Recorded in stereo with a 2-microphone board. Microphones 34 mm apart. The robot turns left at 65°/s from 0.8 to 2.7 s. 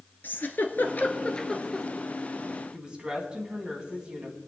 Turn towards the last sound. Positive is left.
turn(degrees=-25)  # may be behind; listen again after turning